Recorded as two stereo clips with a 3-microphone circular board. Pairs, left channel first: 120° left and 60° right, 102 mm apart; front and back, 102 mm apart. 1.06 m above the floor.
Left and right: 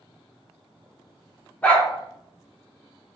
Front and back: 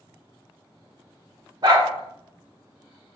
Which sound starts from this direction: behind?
A dog barking, at 1.6 s.